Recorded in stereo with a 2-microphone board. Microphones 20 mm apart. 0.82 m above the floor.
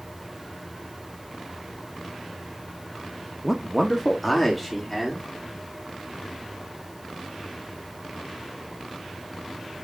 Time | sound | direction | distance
3.4 | a man speaking | 5° left (ahead or behind) | 0.8 m